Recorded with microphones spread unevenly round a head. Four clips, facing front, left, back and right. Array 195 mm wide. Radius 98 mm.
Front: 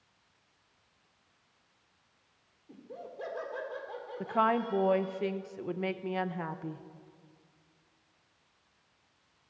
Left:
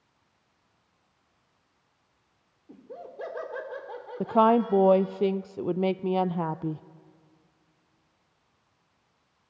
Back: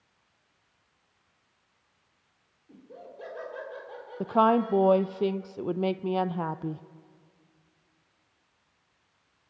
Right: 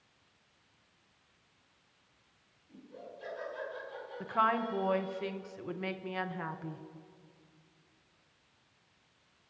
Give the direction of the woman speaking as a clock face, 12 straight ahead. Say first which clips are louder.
Left 10 dB, back 6 dB; 8 o'clock.